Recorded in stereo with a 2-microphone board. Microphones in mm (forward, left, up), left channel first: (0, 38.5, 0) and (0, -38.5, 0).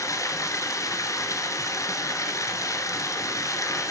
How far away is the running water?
About 1.3 m.